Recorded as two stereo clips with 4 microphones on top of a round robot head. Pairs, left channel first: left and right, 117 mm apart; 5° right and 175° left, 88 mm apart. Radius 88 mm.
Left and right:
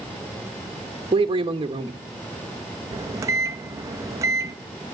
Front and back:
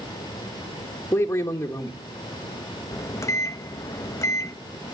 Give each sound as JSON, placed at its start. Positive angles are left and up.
{"t": 1.1, "sound": "a man speaking", "azimuth_deg": -60, "distance_m": 1.4}
{"t": 2.9, "sound": "a microwave", "azimuth_deg": -40, "distance_m": 0.9}